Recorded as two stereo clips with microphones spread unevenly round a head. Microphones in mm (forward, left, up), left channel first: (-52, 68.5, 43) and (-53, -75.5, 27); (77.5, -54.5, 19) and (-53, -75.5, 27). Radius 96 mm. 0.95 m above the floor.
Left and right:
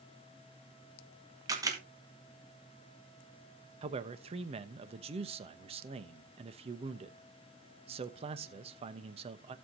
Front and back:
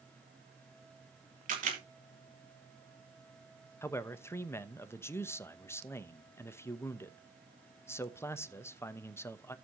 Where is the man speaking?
55° right, 1.0 m.